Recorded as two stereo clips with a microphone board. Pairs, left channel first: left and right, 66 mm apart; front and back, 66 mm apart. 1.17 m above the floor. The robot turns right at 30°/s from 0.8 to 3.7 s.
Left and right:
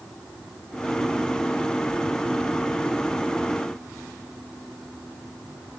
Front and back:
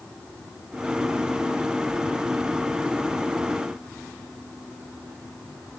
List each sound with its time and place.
Only background noise.